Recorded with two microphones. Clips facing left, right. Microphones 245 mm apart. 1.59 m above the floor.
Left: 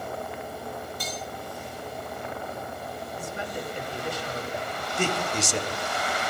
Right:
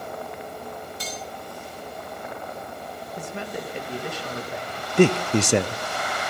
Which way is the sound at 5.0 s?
70° right (ahead or behind).